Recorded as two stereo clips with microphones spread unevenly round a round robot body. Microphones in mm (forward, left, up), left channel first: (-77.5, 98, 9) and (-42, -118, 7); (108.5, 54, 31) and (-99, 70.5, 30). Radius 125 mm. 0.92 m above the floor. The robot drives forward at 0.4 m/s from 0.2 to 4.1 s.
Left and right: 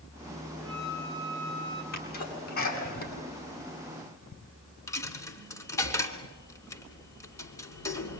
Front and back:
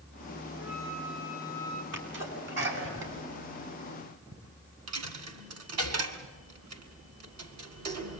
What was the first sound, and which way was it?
A flute, 145° right.